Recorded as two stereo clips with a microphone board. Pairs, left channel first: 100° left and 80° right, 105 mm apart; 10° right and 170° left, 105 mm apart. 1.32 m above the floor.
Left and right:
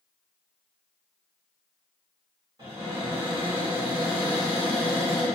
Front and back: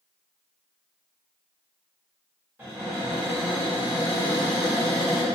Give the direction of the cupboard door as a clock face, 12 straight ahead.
4 o'clock.